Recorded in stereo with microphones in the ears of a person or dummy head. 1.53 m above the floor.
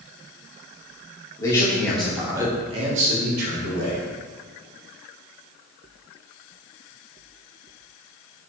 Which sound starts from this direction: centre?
A man speaking, at 1.4 s.